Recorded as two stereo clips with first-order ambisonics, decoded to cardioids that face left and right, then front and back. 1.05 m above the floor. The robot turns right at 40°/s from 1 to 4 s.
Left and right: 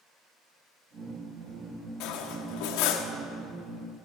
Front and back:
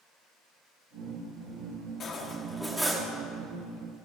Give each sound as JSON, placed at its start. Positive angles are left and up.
{"t": 2.0, "sound": "cutlery clinking", "azimuth_deg": 65, "distance_m": 1.2}